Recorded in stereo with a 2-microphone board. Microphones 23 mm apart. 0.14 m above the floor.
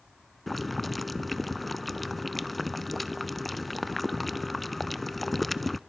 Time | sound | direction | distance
0.5 | boiling | 5° left (ahead or behind) | 0.5 m